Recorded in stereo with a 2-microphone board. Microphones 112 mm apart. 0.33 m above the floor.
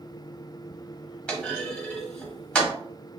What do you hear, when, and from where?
1.3 s a clunk: 5° left (ahead or behind), 1.3 m